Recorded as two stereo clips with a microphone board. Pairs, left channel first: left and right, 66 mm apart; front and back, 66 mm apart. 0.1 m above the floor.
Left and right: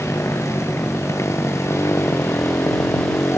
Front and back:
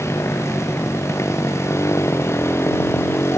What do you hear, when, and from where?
0.0 s a motorcycle: 45° left